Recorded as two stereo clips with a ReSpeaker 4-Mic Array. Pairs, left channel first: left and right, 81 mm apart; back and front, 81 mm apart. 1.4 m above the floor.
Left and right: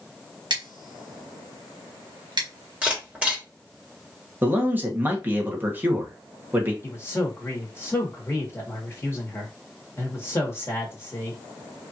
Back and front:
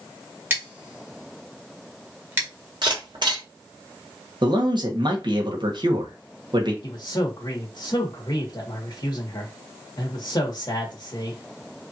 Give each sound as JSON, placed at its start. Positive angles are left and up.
{"t": 0.5, "sound": "scissors", "azimuth_deg": -65, "distance_m": 1.5}
{"t": 2.8, "sound": "a camera shutter", "azimuth_deg": -20, "distance_m": 2.5}
{"t": 4.4, "sound": "a man speaking", "azimuth_deg": -25, "distance_m": 1.4}
{"t": 6.8, "sound": "a man speaking", "azimuth_deg": 150, "distance_m": 1.8}